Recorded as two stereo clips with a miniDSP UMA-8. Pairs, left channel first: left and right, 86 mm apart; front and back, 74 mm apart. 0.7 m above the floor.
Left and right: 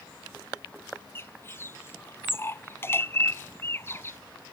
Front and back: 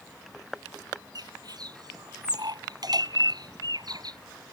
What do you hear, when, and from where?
1.1 s a bird: 150° left